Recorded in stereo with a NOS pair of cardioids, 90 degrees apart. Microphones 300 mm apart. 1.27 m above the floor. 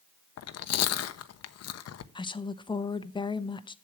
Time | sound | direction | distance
0.4 | chewing | 60° left | 0.8 m
2.1 | a woman speaking | 15° left | 0.8 m